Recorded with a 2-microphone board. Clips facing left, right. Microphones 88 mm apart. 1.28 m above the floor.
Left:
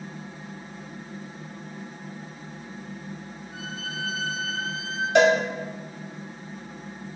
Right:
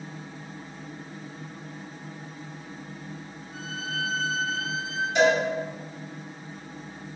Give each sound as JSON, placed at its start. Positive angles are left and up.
{"t": 3.5, "sound": "a violin", "side_deg": 70, "distance_m": 3.0}
{"t": 5.2, "sound": "a cowbell", "side_deg": 70, "distance_m": 1.5}